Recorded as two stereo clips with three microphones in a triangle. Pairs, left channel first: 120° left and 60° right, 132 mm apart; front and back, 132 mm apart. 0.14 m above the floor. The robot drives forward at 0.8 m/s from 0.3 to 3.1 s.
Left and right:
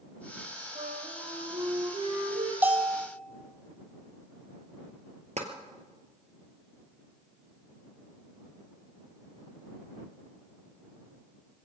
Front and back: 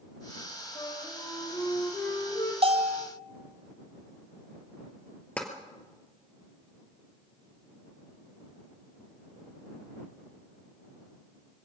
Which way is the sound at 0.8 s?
50° right.